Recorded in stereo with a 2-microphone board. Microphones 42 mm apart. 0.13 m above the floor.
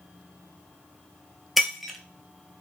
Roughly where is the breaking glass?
Centre.